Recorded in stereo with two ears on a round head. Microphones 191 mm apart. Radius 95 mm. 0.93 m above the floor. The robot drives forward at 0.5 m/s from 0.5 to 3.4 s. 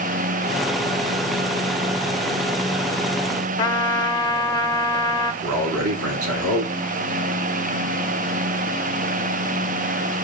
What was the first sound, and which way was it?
A trumpet, 20° left (ahead or behind).